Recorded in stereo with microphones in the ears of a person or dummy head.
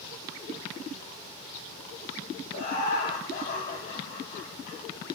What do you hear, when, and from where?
2.5 s laughter: 55° left (ahead or behind), 6.5 m